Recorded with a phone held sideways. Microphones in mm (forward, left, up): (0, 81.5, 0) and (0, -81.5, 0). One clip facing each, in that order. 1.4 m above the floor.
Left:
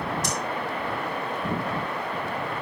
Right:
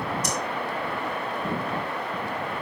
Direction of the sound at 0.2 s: 85° left.